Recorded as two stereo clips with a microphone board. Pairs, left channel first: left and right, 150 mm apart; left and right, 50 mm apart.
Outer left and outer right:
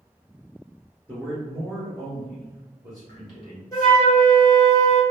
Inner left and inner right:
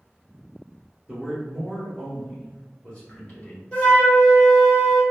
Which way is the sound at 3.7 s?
20° left (ahead or behind).